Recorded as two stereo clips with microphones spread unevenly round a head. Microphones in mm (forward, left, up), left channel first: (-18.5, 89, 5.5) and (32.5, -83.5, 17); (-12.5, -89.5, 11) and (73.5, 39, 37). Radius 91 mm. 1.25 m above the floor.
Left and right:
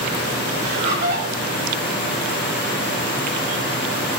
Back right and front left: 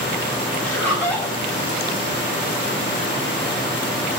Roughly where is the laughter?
Ahead right.